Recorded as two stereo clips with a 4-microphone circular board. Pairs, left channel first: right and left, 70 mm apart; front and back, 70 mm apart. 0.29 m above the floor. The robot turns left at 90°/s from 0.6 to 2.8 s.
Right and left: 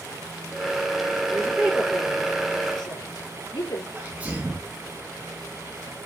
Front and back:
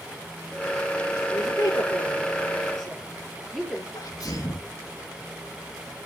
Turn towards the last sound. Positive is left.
turn(degrees=25)